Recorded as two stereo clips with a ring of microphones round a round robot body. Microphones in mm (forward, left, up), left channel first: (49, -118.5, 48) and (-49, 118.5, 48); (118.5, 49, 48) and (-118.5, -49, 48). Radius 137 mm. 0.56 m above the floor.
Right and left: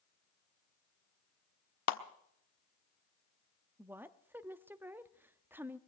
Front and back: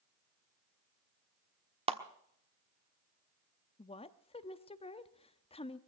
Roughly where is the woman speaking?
Ahead left.